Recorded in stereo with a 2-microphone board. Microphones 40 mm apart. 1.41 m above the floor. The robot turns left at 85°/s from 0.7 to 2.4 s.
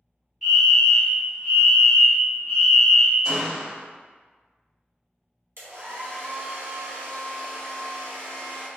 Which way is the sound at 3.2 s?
35° right (ahead or behind).